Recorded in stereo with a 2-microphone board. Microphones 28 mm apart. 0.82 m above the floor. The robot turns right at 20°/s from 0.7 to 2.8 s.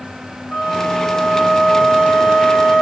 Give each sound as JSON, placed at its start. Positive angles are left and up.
{"t": 0.5, "sound": "a flute", "azimuth_deg": 110, "distance_m": 1.8}